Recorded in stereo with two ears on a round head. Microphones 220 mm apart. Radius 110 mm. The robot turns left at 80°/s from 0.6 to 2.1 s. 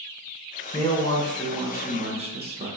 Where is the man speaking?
60° left, 0.6 m; by 2.7 s 50° right, 0.6 m.